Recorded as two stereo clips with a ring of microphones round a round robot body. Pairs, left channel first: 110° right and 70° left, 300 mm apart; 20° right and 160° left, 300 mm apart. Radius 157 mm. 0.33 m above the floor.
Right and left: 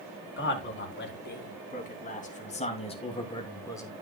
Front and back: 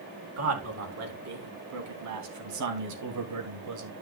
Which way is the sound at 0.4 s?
165° right.